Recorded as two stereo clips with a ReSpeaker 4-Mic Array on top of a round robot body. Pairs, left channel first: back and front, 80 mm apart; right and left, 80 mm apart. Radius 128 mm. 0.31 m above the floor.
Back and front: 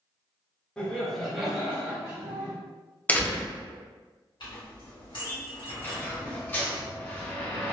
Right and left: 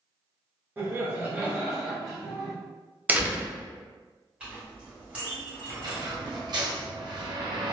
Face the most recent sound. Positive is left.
turn(degrees=115)